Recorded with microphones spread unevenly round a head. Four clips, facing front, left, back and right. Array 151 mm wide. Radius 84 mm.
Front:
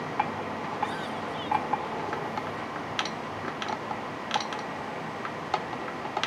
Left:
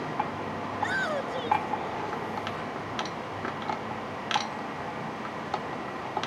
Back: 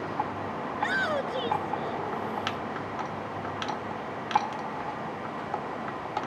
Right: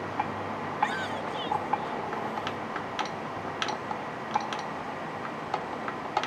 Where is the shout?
150° left; by 2.6 s 155° left.